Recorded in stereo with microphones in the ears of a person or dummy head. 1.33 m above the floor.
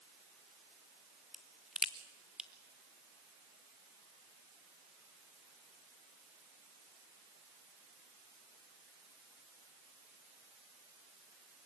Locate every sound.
1.3 s a crack: centre (ahead or behind), 0.8 m